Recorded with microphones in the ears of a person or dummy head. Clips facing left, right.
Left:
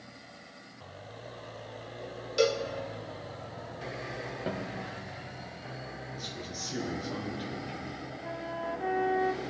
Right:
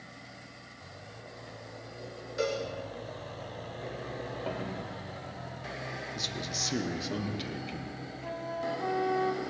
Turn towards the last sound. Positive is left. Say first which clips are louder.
# right 2 dB
turn(degrees=5)  # may be behind; listen again after turning